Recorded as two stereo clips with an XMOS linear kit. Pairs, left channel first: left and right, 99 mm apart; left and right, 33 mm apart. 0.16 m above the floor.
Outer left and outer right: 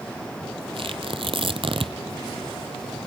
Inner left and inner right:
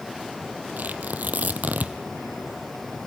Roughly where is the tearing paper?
Right.